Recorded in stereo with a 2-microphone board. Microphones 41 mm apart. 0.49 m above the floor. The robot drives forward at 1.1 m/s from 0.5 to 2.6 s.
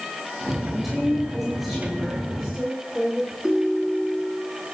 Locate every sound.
0.7 s a woman speaking: 10° right (ahead or behind), 7 m; by 3.3 s 5° right (ahead or behind), 9 m
3.4 s a ringtone: 15° right (ahead or behind), 3.5 m